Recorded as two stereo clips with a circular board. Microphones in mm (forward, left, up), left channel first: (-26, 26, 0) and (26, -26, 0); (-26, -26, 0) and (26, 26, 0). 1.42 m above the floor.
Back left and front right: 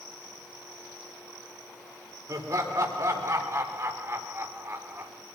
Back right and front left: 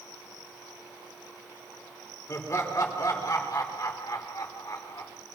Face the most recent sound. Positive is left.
turn(degrees=-105)